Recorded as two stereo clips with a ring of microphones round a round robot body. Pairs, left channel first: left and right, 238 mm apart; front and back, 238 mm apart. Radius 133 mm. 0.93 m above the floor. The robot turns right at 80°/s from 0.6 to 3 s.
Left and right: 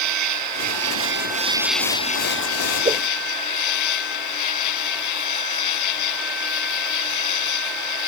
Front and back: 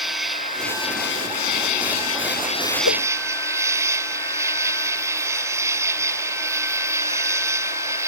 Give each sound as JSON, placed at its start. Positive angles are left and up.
{"t": 0.0, "sound": "an insect", "azimuth_deg": -90}
{"t": 2.9, "sound": "a whoosh", "azimuth_deg": -25}